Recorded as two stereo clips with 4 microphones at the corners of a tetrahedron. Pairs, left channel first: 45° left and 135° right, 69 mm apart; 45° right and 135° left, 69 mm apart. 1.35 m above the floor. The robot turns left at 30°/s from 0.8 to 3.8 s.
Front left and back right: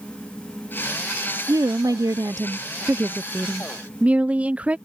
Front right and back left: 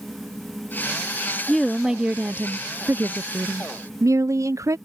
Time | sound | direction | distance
1.5 | a woman speaking | 130° right | ?